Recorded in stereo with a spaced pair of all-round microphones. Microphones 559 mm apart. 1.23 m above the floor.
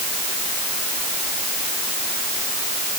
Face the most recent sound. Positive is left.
No sound to turn to.